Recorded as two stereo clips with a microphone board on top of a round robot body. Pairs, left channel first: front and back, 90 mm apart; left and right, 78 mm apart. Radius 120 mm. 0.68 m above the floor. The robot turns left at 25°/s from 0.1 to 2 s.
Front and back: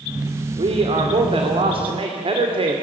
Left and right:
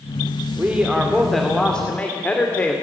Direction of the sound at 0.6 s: 160° right.